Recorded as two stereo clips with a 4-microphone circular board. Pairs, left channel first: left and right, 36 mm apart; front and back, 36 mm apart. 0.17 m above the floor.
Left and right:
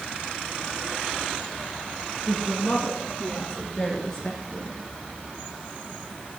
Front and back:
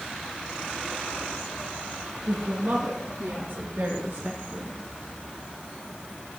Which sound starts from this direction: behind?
A woman speaking, at 2.3 s.